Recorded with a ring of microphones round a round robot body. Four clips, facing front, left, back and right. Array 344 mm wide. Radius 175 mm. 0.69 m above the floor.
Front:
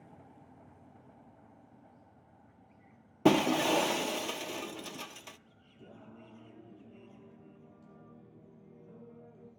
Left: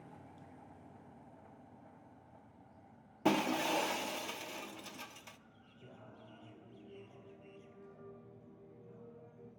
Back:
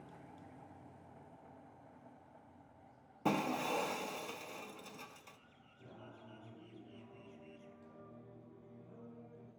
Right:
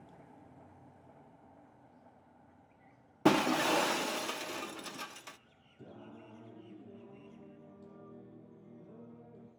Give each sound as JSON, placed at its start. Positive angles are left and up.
{"t": 3.2, "sound": "breaking glass", "azimuth_deg": -20, "distance_m": 0.6}
{"t": 5.8, "sound": "singing", "azimuth_deg": -70, "distance_m": 4.5}